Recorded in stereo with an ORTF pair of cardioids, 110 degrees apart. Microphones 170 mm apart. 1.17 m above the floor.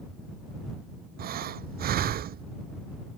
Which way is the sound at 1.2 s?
65° right.